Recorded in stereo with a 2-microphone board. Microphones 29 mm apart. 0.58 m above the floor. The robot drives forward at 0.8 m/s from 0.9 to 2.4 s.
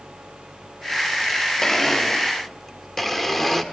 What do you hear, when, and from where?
1.6 s a blender: 20° left (ahead or behind), 0.9 m; by 3.6 s 10° left (ahead or behind), 1.3 m